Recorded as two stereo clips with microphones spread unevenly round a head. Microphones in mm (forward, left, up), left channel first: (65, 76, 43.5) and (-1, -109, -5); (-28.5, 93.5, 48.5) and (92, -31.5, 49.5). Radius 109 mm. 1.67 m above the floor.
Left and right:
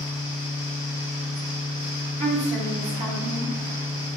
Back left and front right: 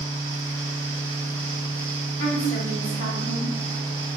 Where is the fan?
15° left, 1.1 m.